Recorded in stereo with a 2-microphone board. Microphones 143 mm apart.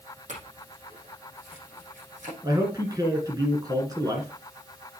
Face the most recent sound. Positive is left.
turn(degrees=-25)  # may be behind; listen again after turning